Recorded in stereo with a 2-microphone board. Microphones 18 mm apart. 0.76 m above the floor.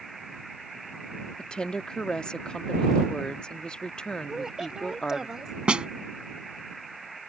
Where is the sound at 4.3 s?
35° right (ahead or behind).